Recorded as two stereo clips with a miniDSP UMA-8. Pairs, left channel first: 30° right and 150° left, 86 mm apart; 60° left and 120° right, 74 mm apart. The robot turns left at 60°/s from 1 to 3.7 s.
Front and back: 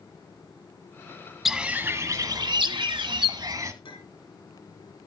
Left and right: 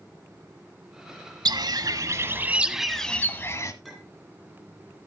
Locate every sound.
1.4 s a bird: 125° right, 0.8 m; by 3.7 s 100° left, 0.8 m
3.8 s a clink: 30° right, 2 m